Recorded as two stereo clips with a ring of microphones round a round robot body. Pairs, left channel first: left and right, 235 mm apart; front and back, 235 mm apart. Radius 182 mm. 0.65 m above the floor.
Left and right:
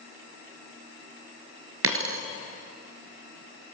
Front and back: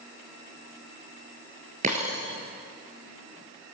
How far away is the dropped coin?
About 1.3 m.